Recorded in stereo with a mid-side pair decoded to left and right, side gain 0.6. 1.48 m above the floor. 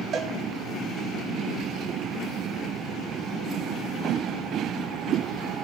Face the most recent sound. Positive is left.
turn(degrees=-45)